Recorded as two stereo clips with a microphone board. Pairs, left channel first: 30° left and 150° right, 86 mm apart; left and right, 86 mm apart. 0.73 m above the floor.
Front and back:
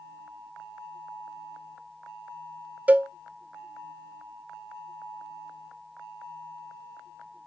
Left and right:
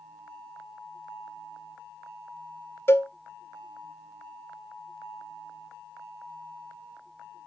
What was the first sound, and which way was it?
A cowbell, 140° left.